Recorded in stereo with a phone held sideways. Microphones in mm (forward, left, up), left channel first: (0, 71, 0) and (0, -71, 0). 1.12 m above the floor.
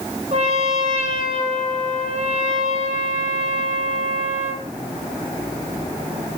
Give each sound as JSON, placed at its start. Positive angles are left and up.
{"t": 0.3, "sound": "a trumpet", "side_deg": -50, "distance_m": 7.5}